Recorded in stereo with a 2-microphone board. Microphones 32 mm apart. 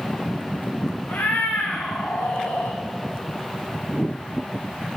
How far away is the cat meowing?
About 2.5 m.